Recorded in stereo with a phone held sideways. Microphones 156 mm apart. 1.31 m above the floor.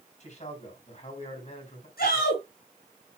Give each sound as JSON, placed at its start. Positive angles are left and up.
{"t": 0.2, "sound": "a man speaking", "side_deg": 50, "distance_m": 5.0}
{"t": 2.0, "sound": "a shout", "side_deg": 80, "distance_m": 7.5}